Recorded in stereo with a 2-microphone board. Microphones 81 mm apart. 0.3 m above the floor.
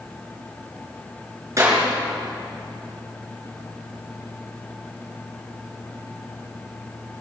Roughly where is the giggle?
I don't hear a giggle.